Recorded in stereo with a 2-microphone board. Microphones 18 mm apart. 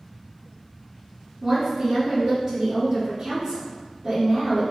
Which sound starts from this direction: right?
A woman speaking, at 1.4 s.